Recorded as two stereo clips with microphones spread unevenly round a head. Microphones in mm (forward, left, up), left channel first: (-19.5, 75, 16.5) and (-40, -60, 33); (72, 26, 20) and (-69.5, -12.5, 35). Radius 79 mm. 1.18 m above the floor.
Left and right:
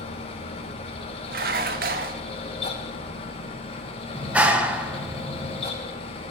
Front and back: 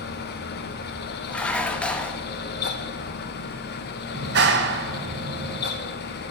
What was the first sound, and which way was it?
A fan, 30° left.